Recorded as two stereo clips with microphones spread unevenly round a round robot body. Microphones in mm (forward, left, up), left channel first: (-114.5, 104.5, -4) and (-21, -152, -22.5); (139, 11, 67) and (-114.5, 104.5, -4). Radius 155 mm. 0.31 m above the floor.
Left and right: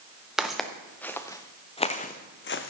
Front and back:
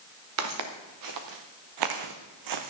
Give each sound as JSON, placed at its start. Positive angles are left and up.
{"t": 0.4, "sound": "footsteps", "azimuth_deg": -160, "distance_m": 2.0}